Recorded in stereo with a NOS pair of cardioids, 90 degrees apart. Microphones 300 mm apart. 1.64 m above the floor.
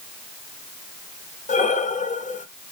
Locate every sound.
1.5 s breathing: 25° left, 0.7 m